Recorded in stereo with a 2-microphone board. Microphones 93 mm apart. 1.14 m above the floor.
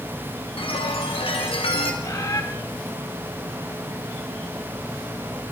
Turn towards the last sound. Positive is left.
turn(degrees=40)  # may be behind; listen again after turning